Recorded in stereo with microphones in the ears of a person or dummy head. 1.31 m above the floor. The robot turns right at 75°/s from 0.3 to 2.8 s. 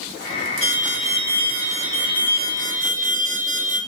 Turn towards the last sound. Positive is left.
turn(degrees=-125)